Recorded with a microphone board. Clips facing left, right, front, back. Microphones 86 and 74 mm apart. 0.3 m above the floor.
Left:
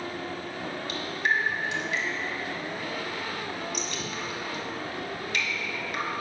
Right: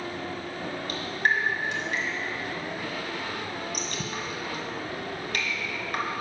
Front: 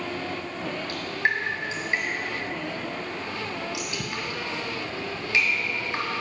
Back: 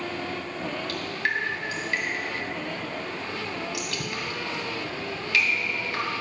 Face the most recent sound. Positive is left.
turn(degrees=-60)